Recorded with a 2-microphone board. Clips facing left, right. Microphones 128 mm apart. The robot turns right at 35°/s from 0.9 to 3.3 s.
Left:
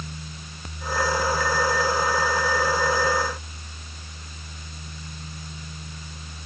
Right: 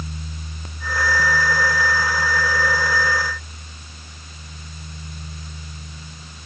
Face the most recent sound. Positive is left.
No sound to turn to.